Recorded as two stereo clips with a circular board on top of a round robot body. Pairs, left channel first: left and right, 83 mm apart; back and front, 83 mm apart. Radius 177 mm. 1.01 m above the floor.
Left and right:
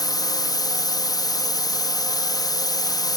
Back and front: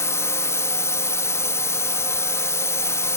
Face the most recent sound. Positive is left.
turn(degrees=125)